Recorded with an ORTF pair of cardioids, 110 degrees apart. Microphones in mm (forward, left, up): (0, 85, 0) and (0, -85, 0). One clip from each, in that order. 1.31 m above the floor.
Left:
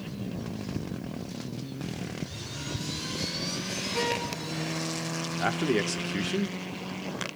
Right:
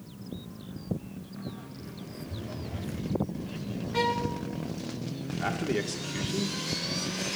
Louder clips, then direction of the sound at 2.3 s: Left 3 dB; 20° right.